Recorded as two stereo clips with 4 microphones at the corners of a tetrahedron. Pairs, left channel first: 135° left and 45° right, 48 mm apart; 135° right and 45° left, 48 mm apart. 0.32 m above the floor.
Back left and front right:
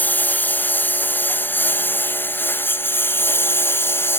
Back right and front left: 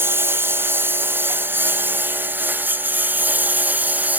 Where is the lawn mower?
85° left; by 4.2 s 100° left.